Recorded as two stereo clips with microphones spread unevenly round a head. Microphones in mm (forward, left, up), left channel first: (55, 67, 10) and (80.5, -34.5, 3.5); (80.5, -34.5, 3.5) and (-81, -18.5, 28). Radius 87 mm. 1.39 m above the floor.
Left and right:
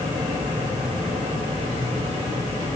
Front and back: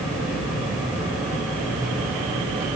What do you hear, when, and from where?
0.0 s a fan: 100° right, 2.5 m